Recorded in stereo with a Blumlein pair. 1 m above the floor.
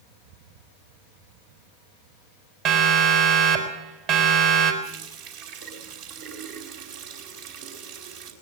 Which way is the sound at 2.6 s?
45° right.